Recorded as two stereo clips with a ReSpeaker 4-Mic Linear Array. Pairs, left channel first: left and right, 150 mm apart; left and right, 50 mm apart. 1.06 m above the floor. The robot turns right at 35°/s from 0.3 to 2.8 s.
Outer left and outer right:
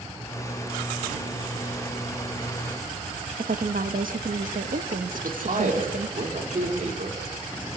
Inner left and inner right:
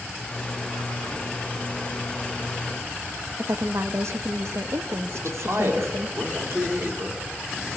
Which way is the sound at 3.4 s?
70° right (ahead or behind).